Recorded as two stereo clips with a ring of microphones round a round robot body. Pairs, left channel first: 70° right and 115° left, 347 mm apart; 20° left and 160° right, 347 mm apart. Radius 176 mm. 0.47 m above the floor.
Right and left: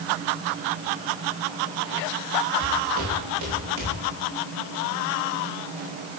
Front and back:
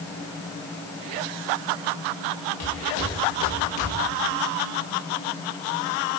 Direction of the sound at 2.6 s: 55° left.